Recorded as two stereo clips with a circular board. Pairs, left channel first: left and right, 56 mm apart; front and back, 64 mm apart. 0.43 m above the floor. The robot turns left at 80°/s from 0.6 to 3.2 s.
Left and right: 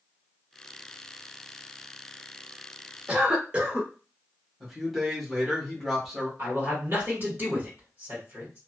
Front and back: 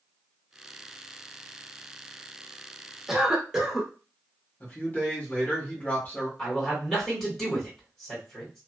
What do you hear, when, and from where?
3.1 s a cough: 100° right, 0.8 m; by 3.9 s 110° right, 0.8 m
4.6 s a man speaking: 10° right, 1.3 m
6.4 s a man speaking: 80° right, 1.8 m